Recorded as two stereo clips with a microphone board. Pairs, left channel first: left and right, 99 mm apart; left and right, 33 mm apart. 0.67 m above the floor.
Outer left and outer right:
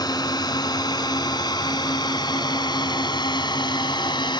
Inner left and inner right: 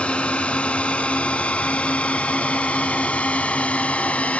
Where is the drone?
45° left (ahead or behind); by 4.4 s 50° left (ahead or behind).